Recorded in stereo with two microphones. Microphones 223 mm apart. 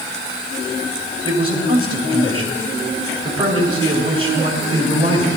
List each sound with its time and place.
1.2 s a man speaking: 25° right (ahead or behind), 3 m